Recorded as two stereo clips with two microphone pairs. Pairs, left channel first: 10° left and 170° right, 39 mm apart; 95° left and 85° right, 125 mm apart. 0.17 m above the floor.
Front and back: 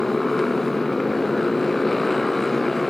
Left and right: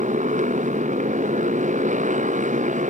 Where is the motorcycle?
75° right.